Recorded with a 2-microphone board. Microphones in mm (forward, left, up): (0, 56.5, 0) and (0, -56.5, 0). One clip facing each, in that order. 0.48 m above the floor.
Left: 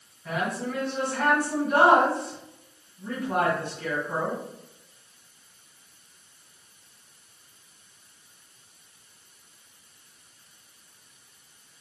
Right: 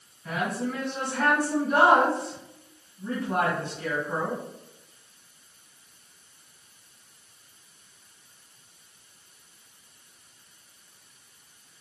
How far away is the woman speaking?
About 2 m.